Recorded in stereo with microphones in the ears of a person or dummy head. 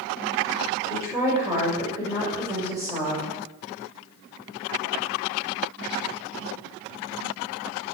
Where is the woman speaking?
15° right (ahead or behind), 6.5 m.